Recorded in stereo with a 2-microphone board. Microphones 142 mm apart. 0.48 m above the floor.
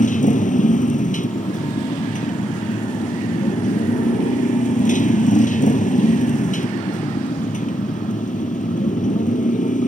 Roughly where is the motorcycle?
Left.